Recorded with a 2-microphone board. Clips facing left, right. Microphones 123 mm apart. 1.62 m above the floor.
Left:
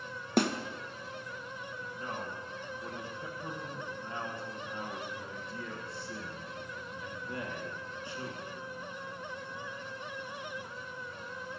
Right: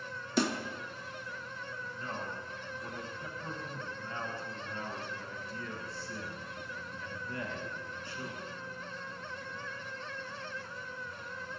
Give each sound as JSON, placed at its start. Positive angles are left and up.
{"t": 0.4, "sound": "a snare drum", "side_deg": 55, "distance_m": 0.9}
{"t": 1.9, "sound": "a man speaking", "side_deg": 20, "distance_m": 1.5}